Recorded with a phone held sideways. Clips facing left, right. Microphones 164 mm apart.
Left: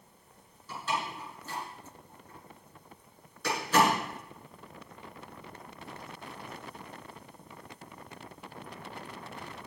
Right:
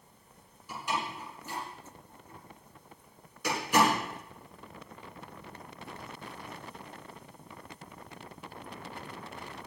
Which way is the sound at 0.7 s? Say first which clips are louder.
Even; 15° right (ahead or behind).